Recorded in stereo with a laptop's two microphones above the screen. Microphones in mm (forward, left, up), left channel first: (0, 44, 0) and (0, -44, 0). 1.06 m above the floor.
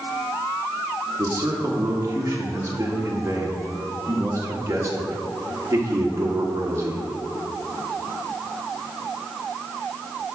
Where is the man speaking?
35° right (ahead or behind), 1.7 m.